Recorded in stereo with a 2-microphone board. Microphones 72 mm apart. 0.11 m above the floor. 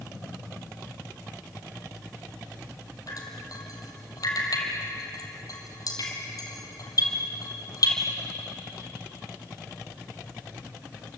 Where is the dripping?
55° left (ahead or behind), 3.5 m.